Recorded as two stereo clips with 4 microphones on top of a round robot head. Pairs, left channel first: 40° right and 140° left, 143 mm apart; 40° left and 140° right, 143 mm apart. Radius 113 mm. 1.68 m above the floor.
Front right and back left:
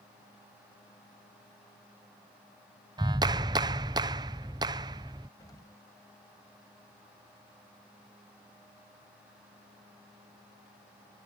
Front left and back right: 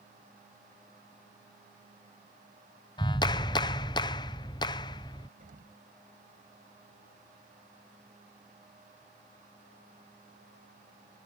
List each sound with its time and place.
3.0 s a clap: 90° left
5.4 s an explosion: 105° right